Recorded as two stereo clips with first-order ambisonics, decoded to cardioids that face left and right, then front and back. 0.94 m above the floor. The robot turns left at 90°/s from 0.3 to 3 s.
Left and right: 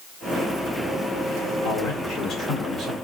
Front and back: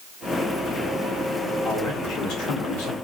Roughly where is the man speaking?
Left.